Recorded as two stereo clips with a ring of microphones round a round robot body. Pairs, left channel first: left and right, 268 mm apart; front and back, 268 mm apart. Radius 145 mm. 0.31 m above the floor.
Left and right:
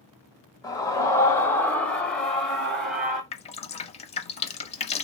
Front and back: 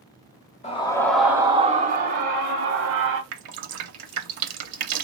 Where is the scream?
30° left, 0.9 m; by 3.2 s straight behind, 1.5 m.